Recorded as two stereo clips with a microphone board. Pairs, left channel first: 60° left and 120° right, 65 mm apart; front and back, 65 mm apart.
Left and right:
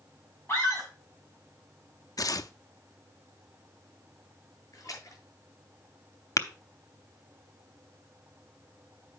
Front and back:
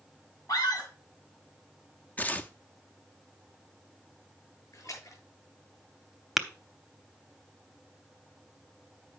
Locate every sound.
0.5 s a scream: 5° left, 6 m
2.2 s tearing paper: 65° left, 0.5 m
4.7 s a splash: 30° left, 6.5 m
6.4 s tapping: 90° left, 0.8 m